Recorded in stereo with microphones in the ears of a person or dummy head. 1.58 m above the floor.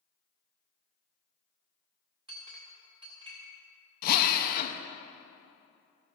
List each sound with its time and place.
2.3 s a clink: 20° right (ahead or behind), 1.5 m
4.0 s a drill: 50° left (ahead or behind), 0.7 m